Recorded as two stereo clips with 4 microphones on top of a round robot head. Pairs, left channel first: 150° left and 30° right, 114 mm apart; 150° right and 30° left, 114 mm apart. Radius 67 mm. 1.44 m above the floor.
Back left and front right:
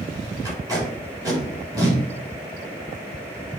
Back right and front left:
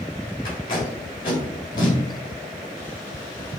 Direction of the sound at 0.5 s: 95° right.